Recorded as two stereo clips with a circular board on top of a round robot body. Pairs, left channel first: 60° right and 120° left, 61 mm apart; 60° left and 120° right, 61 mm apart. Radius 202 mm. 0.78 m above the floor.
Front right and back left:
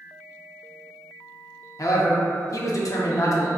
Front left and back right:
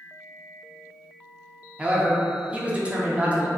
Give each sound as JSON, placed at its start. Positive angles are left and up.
{"t": 1.8, "sound": "a man speaking", "azimuth_deg": -50, "distance_m": 0.7}